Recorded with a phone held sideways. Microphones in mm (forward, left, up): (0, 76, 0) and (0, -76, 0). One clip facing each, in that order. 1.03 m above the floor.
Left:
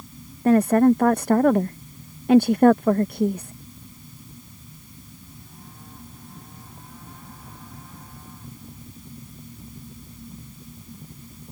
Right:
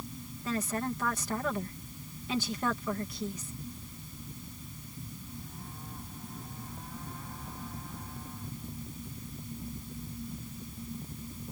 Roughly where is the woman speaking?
Left.